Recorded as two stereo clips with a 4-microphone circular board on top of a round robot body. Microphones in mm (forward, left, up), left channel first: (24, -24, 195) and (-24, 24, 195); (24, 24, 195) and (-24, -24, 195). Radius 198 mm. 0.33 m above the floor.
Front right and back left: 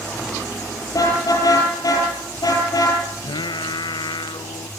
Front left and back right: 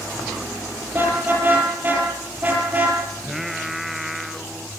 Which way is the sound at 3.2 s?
50° right.